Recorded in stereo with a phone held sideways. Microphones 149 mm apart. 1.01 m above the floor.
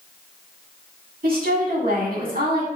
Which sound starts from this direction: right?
A woman speaking, at 1.2 s.